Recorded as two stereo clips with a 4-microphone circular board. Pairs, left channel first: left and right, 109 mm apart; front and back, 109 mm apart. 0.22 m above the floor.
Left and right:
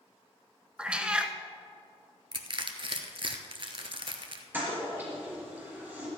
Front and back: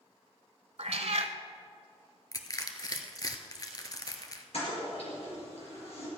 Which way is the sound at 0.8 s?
170° right.